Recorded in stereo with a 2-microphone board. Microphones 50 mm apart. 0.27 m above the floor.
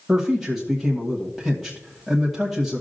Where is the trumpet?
I don't hear a trumpet.